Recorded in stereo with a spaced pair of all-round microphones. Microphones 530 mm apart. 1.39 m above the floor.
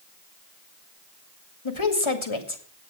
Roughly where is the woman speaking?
Left.